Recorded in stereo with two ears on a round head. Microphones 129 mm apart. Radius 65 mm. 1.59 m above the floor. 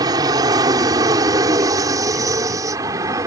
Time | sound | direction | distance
0.0 | an aircraft | 30° right (ahead or behind) | ?